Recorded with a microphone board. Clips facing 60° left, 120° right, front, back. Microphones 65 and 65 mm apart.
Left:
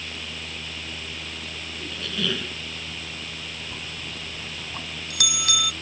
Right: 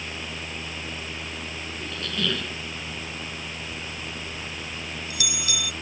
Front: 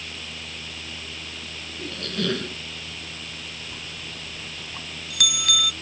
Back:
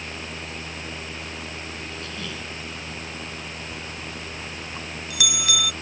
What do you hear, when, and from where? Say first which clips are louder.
1.8 s a squeak: even, front 5 dB; 25° right
3.7 s a bell: right 1 dB, back 3 dB; 95° left